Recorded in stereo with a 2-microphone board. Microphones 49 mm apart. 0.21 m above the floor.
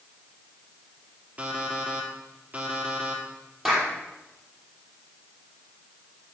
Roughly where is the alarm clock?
Right.